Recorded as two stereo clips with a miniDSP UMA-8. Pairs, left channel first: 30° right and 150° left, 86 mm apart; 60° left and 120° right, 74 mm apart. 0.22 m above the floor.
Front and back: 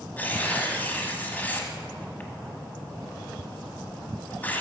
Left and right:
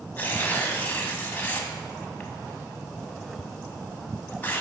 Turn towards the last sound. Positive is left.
turn(degrees=20)